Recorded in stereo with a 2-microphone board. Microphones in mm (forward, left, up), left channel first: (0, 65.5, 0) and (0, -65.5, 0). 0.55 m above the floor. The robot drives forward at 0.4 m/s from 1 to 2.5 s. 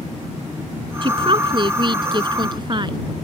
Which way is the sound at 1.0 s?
40° right (ahead or behind).